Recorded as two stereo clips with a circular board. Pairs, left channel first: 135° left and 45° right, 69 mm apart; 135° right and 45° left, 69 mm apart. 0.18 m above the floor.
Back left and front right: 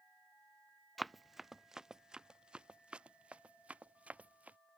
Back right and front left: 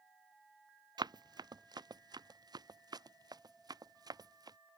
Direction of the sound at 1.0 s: 45° left.